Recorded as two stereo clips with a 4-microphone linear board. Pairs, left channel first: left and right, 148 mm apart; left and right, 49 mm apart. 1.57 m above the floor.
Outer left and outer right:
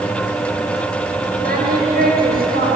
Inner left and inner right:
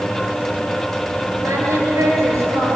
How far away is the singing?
About 9.5 m.